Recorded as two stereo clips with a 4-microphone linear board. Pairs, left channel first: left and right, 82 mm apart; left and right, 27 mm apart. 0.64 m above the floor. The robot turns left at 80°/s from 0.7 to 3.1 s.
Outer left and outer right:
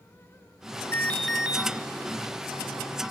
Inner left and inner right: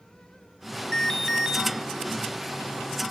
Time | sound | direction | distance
0.9 | an alarm | 30° left | 0.8 m